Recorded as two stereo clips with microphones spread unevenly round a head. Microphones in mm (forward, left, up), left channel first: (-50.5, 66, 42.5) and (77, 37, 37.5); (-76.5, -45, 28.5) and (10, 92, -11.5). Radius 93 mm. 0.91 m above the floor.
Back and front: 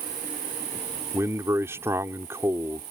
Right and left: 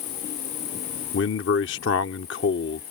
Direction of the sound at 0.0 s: 55° right.